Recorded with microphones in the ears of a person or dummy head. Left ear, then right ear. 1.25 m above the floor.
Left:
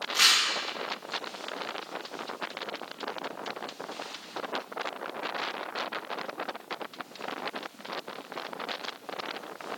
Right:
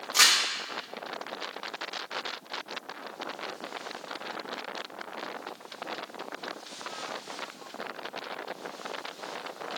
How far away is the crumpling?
About 1.7 m.